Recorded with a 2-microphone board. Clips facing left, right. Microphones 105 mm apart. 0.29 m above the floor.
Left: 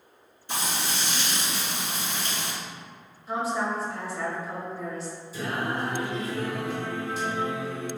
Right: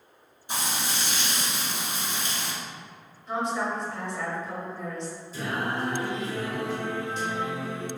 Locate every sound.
0.5 s frying: 15° right (ahead or behind), 1.3 m
3.3 s a woman speaking: 5° left (ahead or behind), 0.9 m
5.3 s singing: 10° left (ahead or behind), 1.6 m